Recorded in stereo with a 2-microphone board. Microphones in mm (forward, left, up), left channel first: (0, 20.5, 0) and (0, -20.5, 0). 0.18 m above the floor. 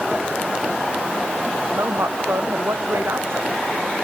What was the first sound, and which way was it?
A woman speaking, 85° right.